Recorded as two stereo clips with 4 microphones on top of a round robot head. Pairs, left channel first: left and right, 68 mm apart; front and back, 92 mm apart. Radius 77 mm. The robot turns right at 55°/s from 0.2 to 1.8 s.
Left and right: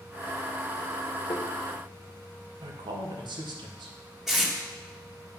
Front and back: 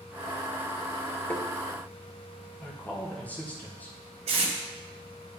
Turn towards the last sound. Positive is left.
turn(degrees=-175)